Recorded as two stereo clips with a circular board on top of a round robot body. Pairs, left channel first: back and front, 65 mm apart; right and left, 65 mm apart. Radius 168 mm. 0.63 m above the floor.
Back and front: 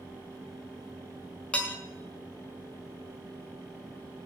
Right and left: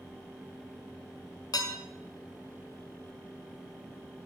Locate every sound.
1.5 s dishes clattering: 105° right, 2.5 m